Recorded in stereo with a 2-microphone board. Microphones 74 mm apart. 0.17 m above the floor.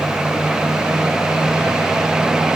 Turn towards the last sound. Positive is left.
No sound to turn to.